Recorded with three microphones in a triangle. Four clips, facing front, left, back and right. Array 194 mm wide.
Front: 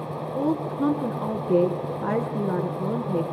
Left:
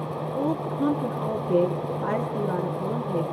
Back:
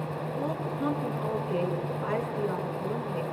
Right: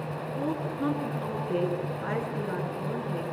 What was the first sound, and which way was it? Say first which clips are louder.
A woman speaking: left 5 dB, front 8 dB; 25° left.